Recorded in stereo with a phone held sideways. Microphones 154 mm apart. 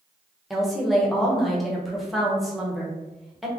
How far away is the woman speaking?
About 0.9 m.